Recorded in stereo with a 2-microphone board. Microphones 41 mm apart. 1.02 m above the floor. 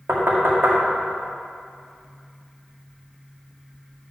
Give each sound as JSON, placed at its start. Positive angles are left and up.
{"t": 0.1, "sound": "knocking", "side_deg": -70, "distance_m": 1.6}